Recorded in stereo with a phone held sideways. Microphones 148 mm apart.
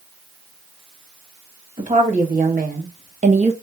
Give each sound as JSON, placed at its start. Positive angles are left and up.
{"t": 1.8, "sound": "a woman speaking", "side_deg": -60, "distance_m": 1.5}